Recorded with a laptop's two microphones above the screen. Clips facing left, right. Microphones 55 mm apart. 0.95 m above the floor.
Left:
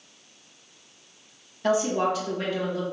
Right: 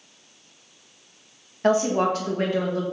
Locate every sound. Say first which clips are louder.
1.6 s a woman speaking: right 3 dB; 45° right (ahead or behind), 1.2 m